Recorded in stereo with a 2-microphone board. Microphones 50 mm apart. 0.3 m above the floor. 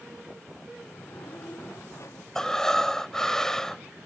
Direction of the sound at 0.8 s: 65° left (ahead or behind).